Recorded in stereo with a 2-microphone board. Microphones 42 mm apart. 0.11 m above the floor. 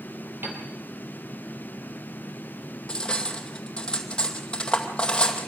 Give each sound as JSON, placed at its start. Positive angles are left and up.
{"t": 0.4, "sound": "a piano", "side_deg": -65, "distance_m": 4.0}
{"t": 2.9, "sound": "cutlery clinking", "side_deg": 20, "distance_m": 2.0}